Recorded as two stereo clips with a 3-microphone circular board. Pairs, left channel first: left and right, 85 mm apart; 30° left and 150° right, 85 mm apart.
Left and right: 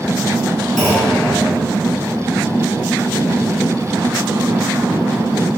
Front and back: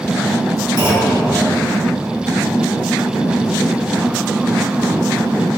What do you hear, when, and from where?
0.8 s a clunk: straight behind, 1.8 m